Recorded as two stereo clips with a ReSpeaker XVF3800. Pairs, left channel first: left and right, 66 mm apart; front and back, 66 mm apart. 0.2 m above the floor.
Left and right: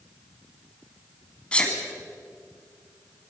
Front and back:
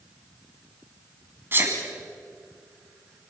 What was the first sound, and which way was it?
A sneeze, 155° left.